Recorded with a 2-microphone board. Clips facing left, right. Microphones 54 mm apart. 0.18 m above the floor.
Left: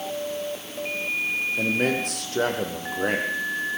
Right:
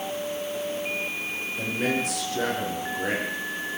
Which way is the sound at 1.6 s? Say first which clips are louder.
Left 1 dB; 50° left (ahead or behind).